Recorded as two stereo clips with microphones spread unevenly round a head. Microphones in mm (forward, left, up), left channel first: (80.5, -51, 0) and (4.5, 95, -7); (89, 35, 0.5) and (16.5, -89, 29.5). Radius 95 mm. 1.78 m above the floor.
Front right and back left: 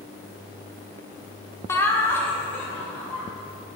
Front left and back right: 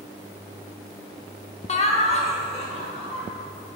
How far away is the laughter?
About 0.8 m.